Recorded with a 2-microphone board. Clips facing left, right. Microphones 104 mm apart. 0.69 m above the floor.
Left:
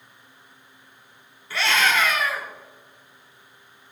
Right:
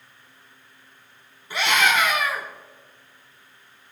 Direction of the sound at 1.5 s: 20° right (ahead or behind).